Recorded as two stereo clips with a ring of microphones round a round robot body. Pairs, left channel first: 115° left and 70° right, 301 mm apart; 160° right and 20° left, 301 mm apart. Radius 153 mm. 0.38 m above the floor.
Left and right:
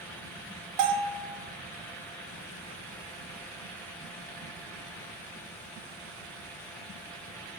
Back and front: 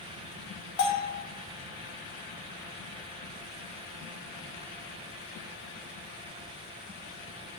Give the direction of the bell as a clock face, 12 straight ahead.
3 o'clock.